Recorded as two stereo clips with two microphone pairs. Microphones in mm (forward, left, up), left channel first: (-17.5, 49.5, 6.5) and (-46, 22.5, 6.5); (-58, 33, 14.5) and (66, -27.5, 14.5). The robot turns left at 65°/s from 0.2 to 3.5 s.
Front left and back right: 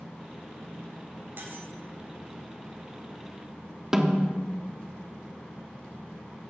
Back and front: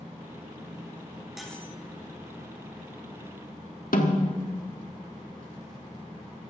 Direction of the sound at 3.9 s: 145° left.